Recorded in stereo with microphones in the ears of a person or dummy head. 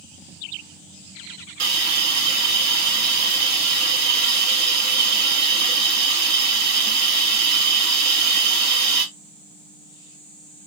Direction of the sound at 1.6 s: 50° right (ahead or behind).